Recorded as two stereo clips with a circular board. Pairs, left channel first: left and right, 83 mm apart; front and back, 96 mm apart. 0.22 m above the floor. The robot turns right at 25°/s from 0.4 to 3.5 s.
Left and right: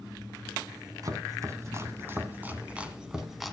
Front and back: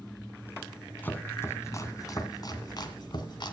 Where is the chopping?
65° right, 1.8 m; by 3.5 s straight ahead, 1.8 m.